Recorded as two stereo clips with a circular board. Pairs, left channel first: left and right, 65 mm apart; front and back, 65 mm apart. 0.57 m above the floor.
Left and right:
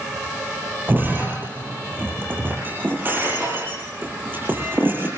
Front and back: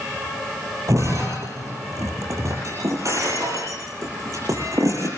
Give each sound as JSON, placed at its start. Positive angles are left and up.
{"t": 0.9, "sound": "breaking glass", "azimuth_deg": -145, "distance_m": 9.5}